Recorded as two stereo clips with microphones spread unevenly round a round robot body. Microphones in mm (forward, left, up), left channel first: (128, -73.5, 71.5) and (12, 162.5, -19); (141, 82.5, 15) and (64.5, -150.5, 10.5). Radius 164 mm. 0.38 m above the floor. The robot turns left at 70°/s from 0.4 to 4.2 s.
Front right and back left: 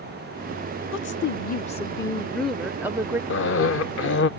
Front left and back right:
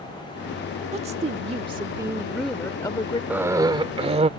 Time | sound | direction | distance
0.9 | a woman speaking | 90° right | ?
3.3 | a cough | 35° right | ?